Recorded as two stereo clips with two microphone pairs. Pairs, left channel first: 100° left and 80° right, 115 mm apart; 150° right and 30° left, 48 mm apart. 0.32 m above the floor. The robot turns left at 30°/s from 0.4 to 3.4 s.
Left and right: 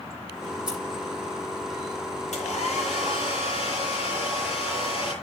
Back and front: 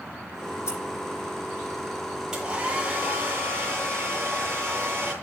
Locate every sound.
0.7 s scissors: 165° right, 8.5 m; by 0.8 s 170° right, 8.5 m
2.3 s a hair dryer: 105° left, 8 m; by 5.1 s 75° left, 8 m